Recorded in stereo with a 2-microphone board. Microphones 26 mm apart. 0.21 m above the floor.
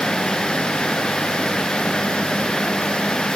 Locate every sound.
Only background noise.